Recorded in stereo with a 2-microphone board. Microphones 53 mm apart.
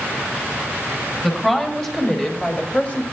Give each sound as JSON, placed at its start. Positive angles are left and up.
{"t": 1.2, "sound": "a woman speaking", "side_deg": 5, "distance_m": 4.5}